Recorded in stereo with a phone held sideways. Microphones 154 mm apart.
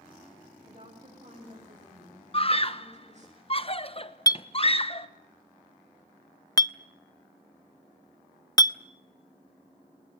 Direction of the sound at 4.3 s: 25° left (ahead or behind).